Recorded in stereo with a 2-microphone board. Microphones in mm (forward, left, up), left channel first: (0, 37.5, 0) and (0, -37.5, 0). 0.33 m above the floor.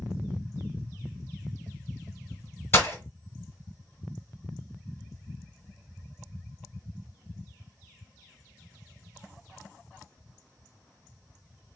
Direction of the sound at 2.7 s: 35° left (ahead or behind).